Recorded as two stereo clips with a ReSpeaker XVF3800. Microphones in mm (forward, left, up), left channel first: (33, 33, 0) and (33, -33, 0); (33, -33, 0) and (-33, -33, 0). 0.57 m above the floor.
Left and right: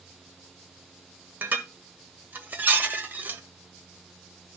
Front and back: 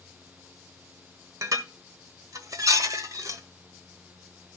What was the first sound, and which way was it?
Dishes clattering, 150° right.